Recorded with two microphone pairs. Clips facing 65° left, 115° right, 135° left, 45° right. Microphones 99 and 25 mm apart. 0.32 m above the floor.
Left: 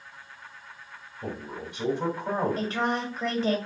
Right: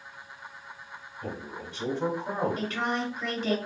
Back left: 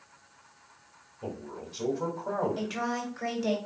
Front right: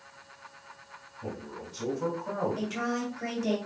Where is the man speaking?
130° left, 1.7 m.